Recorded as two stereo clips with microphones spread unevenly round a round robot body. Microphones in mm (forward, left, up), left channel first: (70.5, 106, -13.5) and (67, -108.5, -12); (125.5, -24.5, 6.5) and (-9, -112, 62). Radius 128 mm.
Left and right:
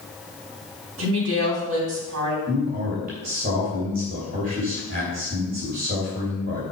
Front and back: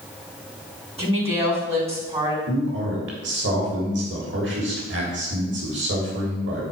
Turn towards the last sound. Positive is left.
turn(degrees=-150)